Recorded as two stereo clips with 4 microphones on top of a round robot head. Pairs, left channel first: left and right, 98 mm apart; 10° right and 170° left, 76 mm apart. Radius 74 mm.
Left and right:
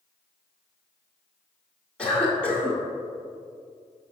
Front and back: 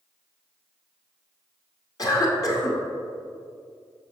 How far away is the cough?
About 2 m.